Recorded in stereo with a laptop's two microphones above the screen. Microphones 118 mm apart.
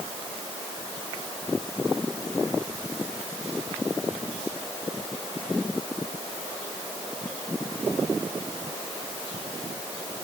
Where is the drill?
I don't hear a drill.